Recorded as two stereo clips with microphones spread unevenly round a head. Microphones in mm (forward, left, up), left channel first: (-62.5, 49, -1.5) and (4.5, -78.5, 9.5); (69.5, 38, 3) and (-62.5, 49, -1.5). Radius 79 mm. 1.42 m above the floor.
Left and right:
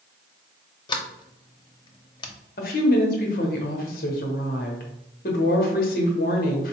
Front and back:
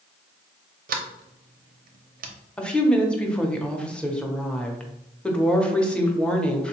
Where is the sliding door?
175° left, 0.6 m.